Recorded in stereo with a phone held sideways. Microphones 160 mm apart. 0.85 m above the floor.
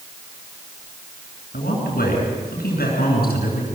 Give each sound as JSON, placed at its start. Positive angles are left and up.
{"t": 1.5, "sound": "a man speaking", "side_deg": 75, "distance_m": 9.5}